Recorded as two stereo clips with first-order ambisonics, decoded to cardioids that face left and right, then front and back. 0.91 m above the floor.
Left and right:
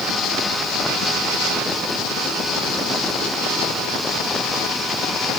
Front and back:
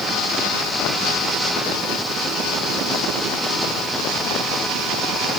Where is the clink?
I don't hear a clink.